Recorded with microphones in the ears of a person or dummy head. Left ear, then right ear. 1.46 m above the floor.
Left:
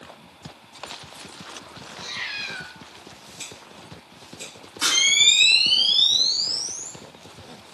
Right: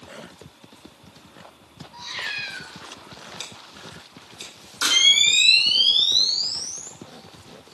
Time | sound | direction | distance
1.9 | a cat meowing | 50° right (ahead or behind) | 1.0 m
3.4 | scissors | 40° right (ahead or behind) | 1.1 m
4.8 | a camera shutter | 25° right (ahead or behind) | 1.9 m